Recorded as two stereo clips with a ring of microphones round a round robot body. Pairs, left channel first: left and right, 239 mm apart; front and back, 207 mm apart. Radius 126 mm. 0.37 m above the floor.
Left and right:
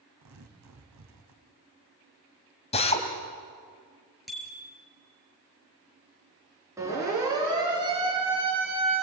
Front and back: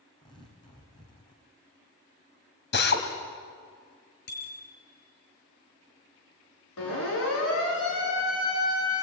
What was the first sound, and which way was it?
Tearing paper, 75° right.